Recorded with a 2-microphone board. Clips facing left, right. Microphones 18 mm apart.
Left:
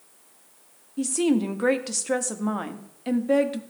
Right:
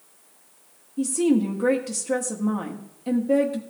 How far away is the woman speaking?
About 1.0 m.